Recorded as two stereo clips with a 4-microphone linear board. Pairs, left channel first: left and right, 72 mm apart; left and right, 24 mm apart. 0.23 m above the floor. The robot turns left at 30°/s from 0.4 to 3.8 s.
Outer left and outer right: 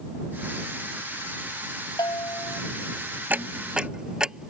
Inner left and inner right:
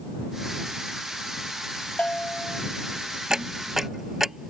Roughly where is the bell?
Left.